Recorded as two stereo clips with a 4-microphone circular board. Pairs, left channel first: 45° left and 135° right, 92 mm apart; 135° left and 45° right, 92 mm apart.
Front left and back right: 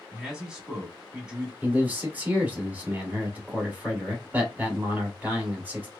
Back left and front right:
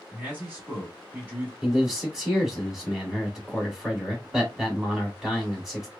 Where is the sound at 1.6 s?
120° right, 1.5 m.